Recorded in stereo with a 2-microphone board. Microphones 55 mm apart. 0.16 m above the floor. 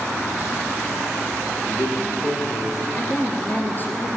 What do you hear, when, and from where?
1.6 s a man speaking: 75° left (ahead or behind), 9.5 m; by 2.9 s 80° left, 9 m
3.0 s a woman speaking: 35° left (ahead or behind), 3.5 m